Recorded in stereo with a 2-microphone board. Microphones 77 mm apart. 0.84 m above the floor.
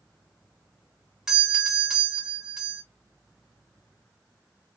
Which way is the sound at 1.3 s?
5° right (ahead or behind).